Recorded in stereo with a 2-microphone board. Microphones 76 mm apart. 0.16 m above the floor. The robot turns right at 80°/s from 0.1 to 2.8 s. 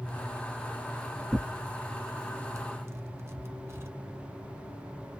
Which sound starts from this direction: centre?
Tearing paper, at 1.3 s.